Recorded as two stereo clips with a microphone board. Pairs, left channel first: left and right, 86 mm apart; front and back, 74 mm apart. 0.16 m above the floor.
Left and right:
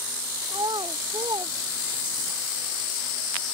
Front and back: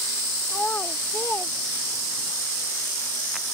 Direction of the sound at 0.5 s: 65° right.